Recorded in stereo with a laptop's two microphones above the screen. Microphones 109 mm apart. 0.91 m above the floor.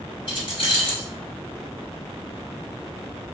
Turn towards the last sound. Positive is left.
turn(degrees=45)  # may be behind; listen again after turning